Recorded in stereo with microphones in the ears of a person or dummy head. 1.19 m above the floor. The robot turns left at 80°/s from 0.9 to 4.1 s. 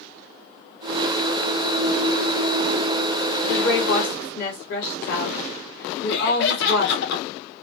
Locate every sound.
3.5 s a woman speaking: 115° left, 1.9 m; by 7.0 s 65° left, 1.9 m
6.1 s laughter: 60° left (ahead or behind), 1.0 m